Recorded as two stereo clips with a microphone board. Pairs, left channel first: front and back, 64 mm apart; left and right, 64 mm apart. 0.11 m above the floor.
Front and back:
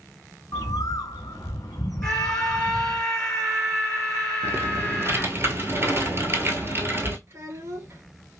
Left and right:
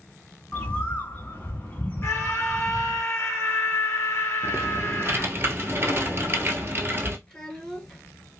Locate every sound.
0.5 s a bird: 30° left, 0.9 m
2.0 s a scream: 75° left, 1.4 m
4.4 s typing on a keyboard: 140° right, 0.8 m
7.3 s a child speaking: 165° left, 1.2 m